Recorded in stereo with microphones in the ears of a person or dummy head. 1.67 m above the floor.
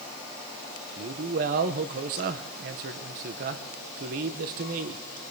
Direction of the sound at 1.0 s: 45° right (ahead or behind).